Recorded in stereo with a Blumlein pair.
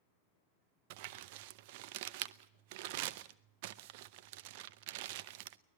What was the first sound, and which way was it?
Crumpling, 50° right.